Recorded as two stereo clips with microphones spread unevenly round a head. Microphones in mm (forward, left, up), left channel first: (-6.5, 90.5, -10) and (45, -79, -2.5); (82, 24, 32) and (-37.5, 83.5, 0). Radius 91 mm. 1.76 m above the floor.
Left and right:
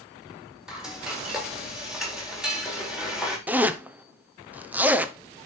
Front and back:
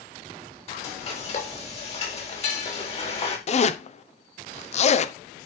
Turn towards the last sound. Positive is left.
turn(degrees=10)